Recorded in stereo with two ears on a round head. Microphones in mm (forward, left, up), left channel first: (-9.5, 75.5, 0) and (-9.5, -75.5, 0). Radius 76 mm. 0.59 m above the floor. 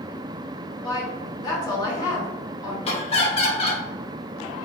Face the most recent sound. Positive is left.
turn(degrees=35)  # may be behind; listen again after turning